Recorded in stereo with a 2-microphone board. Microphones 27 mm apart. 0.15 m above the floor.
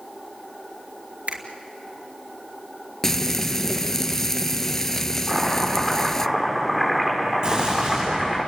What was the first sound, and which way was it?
A finger snap, 55° right (ahead or behind).